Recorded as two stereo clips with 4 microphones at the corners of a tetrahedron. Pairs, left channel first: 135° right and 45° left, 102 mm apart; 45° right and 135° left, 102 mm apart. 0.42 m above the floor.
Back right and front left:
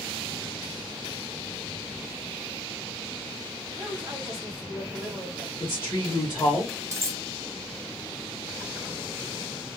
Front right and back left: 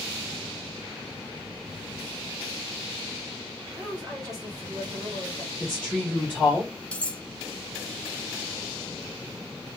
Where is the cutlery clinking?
20° left, 0.5 m.